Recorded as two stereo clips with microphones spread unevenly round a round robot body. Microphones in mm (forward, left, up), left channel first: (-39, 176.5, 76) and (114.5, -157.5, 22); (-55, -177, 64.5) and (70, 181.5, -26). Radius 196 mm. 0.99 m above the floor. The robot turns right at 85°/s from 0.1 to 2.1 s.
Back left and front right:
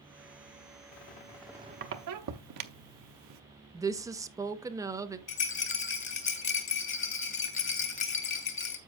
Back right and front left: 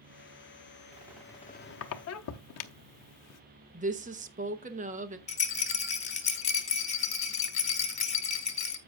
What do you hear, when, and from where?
0.9 s a squeak: 150° left, 0.6 m; by 3.4 s 110° right, 0.6 m
3.7 s a woman speaking: 10° left, 0.9 m
5.3 s a rattle: 175° right, 1.1 m